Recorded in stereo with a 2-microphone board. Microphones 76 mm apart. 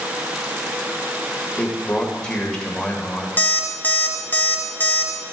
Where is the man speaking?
10° left (ahead or behind), 1.9 m.